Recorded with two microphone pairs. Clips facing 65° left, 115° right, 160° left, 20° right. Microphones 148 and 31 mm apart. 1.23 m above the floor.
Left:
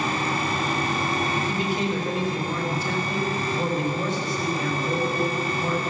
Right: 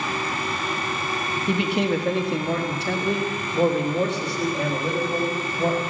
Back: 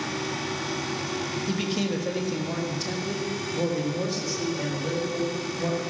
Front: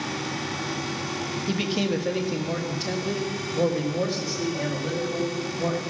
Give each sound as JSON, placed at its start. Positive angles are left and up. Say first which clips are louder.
{"t": 1.5, "sound": "a man speaking", "louder": "right 3 dB, front 3 dB", "azimuth_deg": -95, "distance_m": 1.2}